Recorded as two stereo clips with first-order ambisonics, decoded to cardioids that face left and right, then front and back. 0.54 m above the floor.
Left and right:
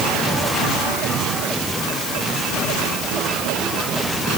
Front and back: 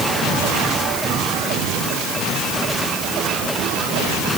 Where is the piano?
I don't hear a piano.